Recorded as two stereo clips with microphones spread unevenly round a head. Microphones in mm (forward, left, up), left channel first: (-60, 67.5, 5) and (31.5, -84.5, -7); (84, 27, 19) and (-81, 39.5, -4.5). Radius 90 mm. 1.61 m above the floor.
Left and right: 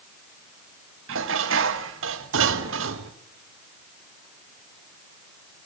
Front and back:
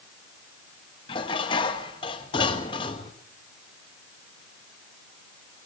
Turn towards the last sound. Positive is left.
turn(degrees=-65)